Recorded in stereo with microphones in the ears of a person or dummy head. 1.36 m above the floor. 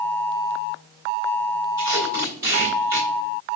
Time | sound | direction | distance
1.8 | tape being pulled | 20° right (ahead or behind) | 1.9 m